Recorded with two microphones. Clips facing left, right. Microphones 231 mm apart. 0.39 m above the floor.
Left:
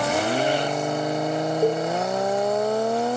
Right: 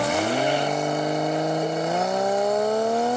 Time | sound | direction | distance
1.6 | a cowbell | 55° left (ahead or behind) | 1.3 m